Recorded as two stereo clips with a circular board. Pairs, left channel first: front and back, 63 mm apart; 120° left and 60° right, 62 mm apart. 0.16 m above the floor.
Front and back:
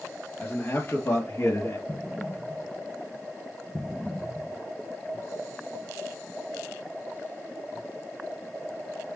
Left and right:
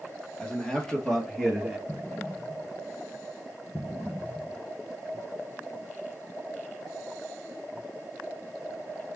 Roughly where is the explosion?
Left.